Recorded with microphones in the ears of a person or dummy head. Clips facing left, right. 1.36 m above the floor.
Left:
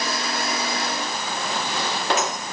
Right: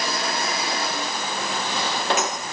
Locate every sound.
Only background noise.